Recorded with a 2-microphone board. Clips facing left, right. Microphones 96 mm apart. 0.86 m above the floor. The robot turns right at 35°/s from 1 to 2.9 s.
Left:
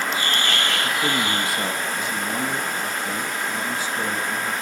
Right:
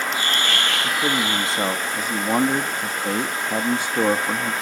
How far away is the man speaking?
About 0.8 m.